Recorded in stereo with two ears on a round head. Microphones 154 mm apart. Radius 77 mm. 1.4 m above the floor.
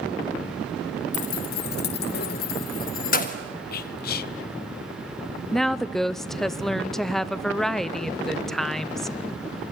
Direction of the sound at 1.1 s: 40° left (ahead or behind).